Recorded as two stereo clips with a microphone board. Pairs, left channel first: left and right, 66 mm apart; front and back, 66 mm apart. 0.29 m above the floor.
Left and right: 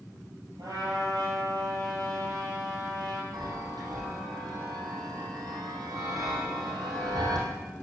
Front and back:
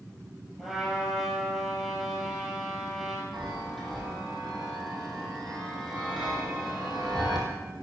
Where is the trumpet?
95° right, 5.5 m.